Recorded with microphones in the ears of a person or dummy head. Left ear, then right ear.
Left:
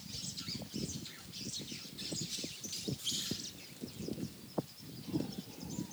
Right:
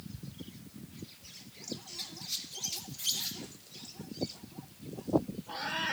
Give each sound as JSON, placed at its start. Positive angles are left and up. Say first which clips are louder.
{"t": 2.0, "sound": "a squeak", "louder": "right 1 dB", "side_deg": -25, "distance_m": 1.7}